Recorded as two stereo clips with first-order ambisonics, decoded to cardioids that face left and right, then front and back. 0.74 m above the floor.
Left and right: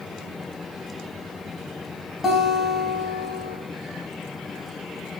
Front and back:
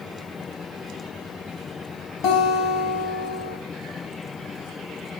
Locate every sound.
2.2 s a guitar: 15° left, 0.8 m